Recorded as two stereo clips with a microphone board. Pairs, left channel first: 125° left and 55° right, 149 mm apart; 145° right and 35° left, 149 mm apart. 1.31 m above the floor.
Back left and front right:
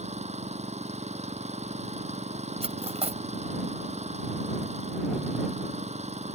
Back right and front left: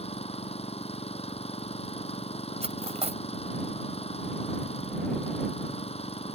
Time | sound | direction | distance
0.0 | an engine running | 100° right | ?
2.6 | cutlery clinking | 10° right | ?